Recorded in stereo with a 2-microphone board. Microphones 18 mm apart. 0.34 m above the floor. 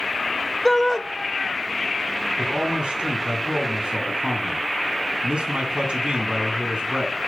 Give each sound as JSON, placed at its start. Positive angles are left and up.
{"t": 0.7, "sound": "a shout", "side_deg": 20, "distance_m": 0.8}
{"t": 2.4, "sound": "a man speaking", "side_deg": -65, "distance_m": 3.0}